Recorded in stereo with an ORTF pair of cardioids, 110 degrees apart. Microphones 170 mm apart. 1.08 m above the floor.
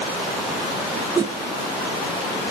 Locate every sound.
1.1 s a whoosh: 20° right, 1.7 m